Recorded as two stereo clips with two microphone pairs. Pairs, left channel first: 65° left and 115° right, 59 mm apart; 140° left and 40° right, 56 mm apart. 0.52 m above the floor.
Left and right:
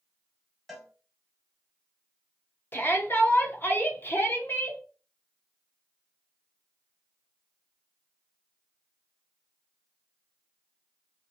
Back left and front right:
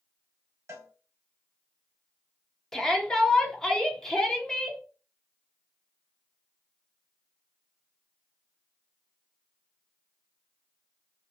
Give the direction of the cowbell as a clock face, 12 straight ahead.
1 o'clock.